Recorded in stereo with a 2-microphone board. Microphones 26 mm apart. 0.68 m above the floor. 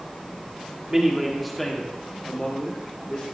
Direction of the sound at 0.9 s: 20° right (ahead or behind).